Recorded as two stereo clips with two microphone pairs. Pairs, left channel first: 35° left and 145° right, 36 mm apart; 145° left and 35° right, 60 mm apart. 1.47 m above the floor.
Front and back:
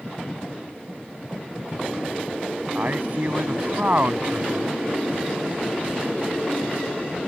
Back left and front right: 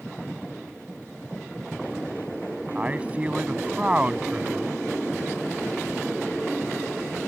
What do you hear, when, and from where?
2.8 s a man speaking: 105° right